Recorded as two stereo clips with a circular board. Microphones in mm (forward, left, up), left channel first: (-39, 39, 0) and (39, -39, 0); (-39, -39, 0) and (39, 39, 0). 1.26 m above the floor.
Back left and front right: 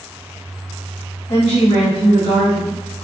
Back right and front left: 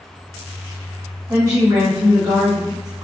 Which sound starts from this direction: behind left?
A woman speaking, at 1.3 s.